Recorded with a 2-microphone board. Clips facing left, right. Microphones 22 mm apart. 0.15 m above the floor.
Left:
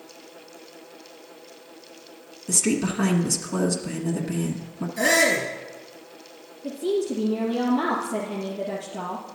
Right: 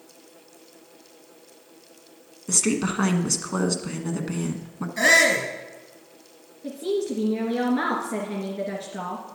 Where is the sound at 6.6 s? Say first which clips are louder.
Left 1 dB; 55° right (ahead or behind), 2 m.